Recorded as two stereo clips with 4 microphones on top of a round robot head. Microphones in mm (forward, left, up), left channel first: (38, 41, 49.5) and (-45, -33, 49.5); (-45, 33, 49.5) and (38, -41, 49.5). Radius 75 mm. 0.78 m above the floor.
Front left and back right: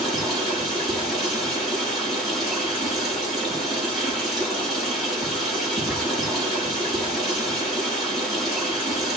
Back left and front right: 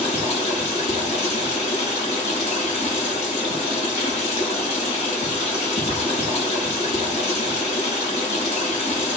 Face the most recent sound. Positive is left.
turn(degrees=130)